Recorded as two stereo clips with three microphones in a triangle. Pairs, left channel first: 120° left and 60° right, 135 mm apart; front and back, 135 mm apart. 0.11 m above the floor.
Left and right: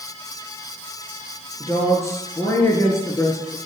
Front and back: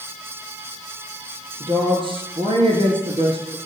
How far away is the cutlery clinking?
I don't hear cutlery clinking.